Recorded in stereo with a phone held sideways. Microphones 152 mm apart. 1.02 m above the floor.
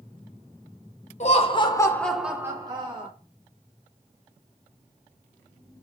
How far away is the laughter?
About 0.9 m.